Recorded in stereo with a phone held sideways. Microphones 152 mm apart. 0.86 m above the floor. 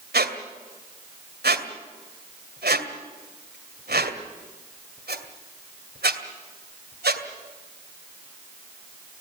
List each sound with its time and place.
0.1 s a squeak: 85° right, 2 m